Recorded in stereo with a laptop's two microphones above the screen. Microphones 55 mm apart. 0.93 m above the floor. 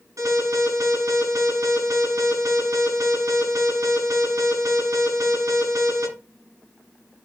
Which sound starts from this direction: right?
An alarm, at 0.2 s.